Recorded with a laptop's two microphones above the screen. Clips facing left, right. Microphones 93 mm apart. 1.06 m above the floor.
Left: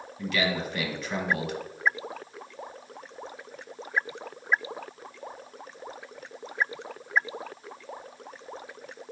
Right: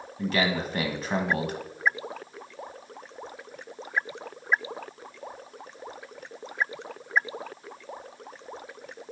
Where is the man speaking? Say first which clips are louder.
Right 2 dB; 35° right (ahead or behind), 1.2 m.